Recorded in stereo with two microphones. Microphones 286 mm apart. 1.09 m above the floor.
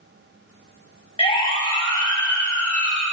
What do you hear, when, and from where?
1.2 s a siren: 20° left (ahead or behind), 9 m; by 3.0 s 5° left (ahead or behind), 7.5 m